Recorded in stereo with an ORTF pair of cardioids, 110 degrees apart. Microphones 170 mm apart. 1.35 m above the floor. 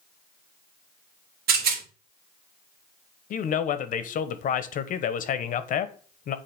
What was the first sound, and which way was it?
A rattle, 70° right.